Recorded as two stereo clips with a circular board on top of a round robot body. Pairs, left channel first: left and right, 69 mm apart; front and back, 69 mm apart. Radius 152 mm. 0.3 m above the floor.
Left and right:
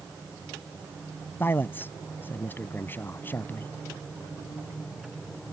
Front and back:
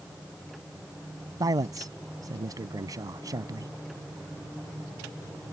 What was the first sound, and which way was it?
A man speaking, 150° left.